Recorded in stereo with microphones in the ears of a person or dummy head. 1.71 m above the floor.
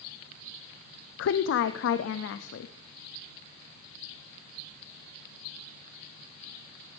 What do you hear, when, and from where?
1.2 s a woman speaking: 70° left (ahead or behind), 0.5 m